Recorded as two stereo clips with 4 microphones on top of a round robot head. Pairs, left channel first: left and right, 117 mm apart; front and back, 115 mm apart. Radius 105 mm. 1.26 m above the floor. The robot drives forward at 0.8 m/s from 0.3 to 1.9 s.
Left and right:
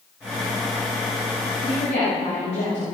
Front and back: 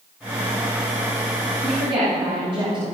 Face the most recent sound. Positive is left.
turn(degrees=135)